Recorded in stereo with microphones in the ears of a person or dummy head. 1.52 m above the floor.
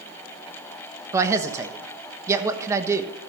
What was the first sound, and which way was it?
A man speaking, 15° right (ahead or behind).